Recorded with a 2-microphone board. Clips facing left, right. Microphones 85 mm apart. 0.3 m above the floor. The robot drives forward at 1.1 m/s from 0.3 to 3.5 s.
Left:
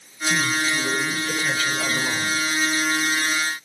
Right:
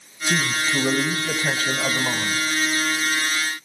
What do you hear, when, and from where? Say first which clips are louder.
0.3 s a man speaking: even; 35° right (ahead or behind), 1.5 m; by 2.5 s 25° right (ahead or behind), 1.9 m